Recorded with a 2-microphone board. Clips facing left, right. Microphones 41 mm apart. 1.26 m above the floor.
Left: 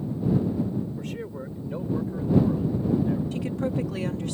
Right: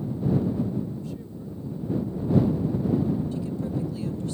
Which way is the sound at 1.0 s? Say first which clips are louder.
Left 3 dB; 60° left (ahead or behind).